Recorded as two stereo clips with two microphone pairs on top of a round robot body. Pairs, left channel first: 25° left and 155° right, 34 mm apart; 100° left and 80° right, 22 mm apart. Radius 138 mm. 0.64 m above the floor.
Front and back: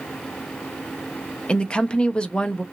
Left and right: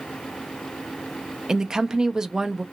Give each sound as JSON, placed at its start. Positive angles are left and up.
{"t": 1.5, "sound": "a woman speaking", "azimuth_deg": -25, "distance_m": 0.7}